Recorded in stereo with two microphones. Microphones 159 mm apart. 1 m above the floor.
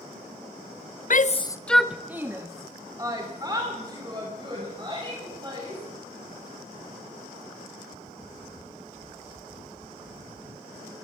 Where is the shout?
60° left (ahead or behind), 0.6 m; by 5.8 s 30° right (ahead or behind), 6 m.